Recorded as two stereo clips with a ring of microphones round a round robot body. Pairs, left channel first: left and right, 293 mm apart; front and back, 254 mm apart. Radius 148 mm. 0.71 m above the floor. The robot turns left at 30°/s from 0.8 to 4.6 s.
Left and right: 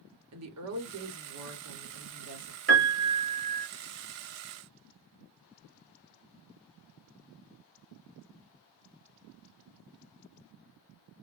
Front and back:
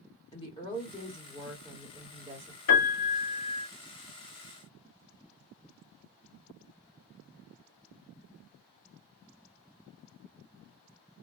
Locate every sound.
0.3 s a woman speaking: 70° right, 1.7 m; by 2.6 s 125° right, 1.7 m
2.7 s a piano: 35° right, 2.5 m; by 3.7 s 65° right, 2.5 m